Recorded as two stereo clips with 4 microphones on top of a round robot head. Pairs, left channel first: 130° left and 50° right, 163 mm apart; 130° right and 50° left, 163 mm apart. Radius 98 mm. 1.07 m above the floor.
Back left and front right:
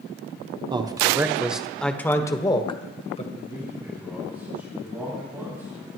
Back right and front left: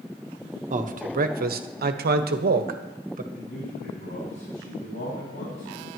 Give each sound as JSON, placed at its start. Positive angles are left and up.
{"t": 0.7, "sound": "a man speaking", "azimuth_deg": 10, "distance_m": 1.3}
{"t": 3.3, "sound": "a man speaking", "azimuth_deg": -125, "distance_m": 6.5}